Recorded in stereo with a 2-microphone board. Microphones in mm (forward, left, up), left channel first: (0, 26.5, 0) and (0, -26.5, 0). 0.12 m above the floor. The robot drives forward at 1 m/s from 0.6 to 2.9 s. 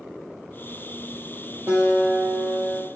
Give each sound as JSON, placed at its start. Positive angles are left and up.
{"t": 1.7, "sound": "a guitar", "side_deg": -45, "distance_m": 4.5}